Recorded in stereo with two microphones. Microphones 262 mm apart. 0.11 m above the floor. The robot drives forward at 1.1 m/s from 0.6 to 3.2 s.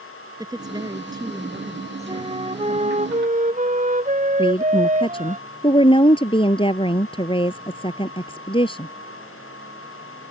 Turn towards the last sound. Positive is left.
turn(degrees=20)  # may be behind; listen again after turning